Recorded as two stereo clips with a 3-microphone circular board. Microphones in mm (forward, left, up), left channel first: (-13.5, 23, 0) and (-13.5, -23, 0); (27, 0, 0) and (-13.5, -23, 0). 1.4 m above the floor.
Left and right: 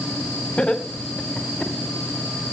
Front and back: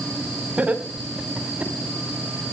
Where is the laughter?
160° left, 4 m; by 1.7 s 170° left, 4.5 m.